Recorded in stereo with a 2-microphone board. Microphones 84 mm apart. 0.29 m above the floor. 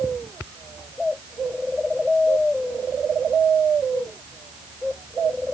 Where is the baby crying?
No baby crying in this recording.